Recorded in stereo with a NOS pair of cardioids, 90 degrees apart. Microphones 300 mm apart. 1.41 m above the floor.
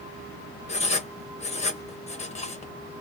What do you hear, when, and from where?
0.7 s writing: 20° left, 1.0 m